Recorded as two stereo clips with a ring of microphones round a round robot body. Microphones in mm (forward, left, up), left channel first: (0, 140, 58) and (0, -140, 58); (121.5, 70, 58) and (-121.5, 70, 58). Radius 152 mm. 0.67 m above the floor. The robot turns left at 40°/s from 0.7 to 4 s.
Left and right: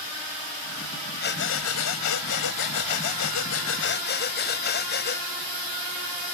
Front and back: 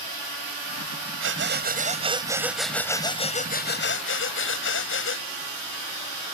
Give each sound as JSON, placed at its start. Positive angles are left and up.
{"t": 1.2, "sound": "breathing", "azimuth_deg": 145}